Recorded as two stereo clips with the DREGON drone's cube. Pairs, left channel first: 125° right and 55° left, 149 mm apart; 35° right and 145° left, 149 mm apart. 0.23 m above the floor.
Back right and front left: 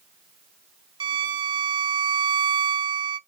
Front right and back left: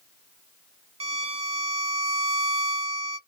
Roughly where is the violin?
Left.